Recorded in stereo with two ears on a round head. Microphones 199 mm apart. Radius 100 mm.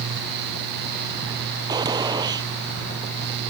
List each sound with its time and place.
1.7 s a gunshot: 20° right (ahead or behind)